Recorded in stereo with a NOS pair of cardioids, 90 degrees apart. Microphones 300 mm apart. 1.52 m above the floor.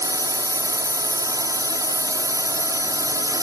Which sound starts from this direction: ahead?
A drone, at 0.0 s.